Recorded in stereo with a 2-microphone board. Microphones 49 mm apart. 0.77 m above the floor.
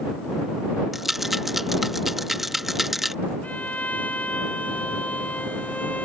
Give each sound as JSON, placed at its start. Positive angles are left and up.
{"t": 0.9, "sound": "a rattle", "side_deg": -5}
{"t": 3.4, "sound": "a violin", "side_deg": 25}